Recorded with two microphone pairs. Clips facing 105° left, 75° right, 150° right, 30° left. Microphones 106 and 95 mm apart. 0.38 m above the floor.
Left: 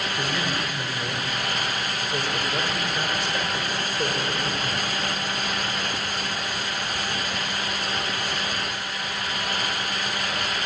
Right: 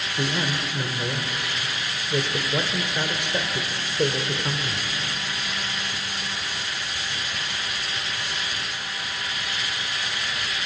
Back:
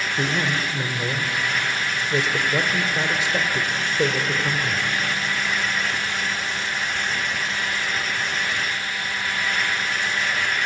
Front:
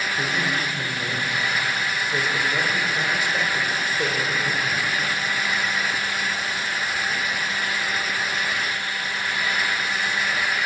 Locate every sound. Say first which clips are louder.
0.2 s a man speaking: right 4 dB, back 3 dB; 120° right, 1.6 m